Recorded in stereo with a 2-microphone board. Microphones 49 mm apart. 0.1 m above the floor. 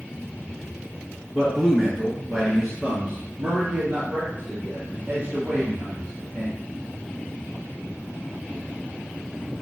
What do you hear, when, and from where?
1.3 s a man speaking: 10° left (ahead or behind), 1.4 m; by 6.6 s 40° right (ahead or behind), 3 m